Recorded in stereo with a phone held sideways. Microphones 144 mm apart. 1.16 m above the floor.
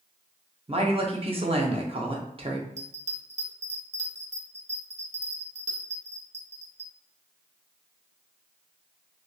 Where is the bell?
55° right (ahead or behind), 0.6 m.